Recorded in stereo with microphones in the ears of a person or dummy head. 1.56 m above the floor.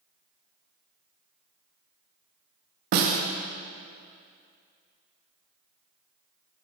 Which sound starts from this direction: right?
A snare drum, at 2.9 s.